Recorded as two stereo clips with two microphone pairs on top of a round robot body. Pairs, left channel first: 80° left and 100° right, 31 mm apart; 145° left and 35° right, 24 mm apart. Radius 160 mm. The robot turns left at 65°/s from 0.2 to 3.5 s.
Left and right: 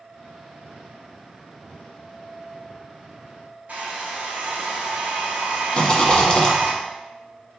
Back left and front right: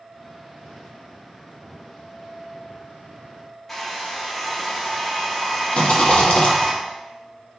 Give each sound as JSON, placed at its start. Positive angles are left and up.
{"t": 3.7, "sound": "a hair dryer", "azimuth_deg": -135, "distance_m": 0.6}
{"t": 5.7, "sound": "a rattle", "azimuth_deg": 130, "distance_m": 1.4}